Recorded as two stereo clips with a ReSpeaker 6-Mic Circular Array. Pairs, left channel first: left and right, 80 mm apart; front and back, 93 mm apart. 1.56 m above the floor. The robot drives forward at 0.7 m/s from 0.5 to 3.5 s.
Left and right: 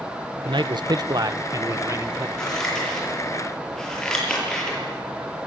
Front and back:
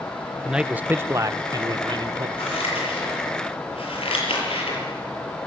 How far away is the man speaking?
About 1.0 m.